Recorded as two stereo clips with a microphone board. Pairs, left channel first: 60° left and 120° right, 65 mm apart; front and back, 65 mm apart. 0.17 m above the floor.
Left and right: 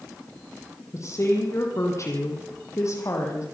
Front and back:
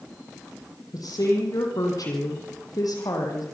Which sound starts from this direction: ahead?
A woman speaking, at 0.9 s.